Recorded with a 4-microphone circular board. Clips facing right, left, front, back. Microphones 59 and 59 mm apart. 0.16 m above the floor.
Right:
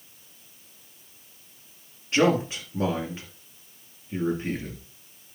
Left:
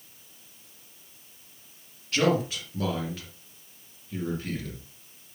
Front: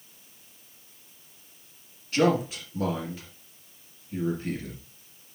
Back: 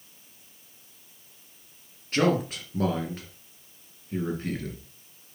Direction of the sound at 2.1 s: 150° right.